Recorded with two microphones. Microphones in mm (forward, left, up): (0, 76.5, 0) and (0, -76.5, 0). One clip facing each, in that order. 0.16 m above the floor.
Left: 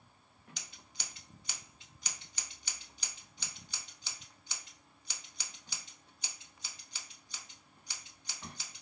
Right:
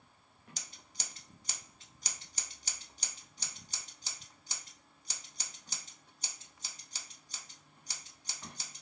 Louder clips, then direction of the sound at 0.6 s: Right 1 dB; 40° right (ahead or behind).